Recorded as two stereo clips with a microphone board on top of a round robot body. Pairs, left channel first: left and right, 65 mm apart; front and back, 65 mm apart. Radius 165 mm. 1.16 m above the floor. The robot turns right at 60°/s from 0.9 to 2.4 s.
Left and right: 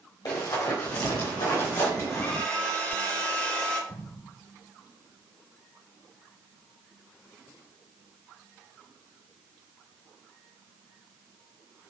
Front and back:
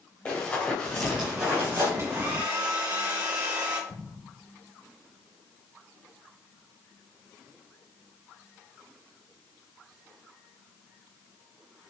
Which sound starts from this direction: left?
Running footsteps, at 0.2 s.